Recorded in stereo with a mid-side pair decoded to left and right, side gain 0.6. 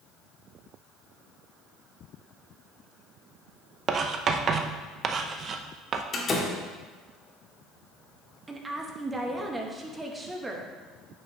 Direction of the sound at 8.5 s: 15° right.